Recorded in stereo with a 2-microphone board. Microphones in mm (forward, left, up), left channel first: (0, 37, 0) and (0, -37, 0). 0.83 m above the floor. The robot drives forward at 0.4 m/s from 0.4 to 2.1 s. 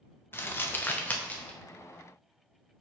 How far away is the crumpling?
About 0.5 m.